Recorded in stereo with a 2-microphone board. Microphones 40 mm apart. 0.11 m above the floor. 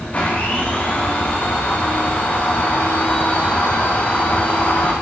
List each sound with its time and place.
0.1 s a blender: 35° left (ahead or behind), 8 m